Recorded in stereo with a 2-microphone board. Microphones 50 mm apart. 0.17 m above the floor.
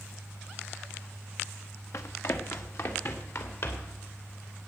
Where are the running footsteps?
65° left (ahead or behind), 1.3 m; by 4.0 s 55° left (ahead or behind), 3 m.